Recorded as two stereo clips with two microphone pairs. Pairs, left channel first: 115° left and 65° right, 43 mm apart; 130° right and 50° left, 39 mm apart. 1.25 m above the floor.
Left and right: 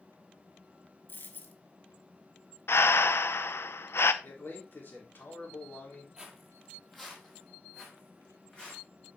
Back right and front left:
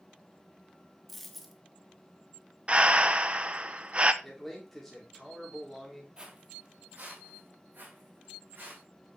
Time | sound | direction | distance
1.1 | a dropped coin | 140° left | 1.2 m
2.7 | breathing | 105° left | 0.6 m
4.2 | a man speaking | 145° left | 3.5 m
6.2 | footsteps | straight ahead | 1.8 m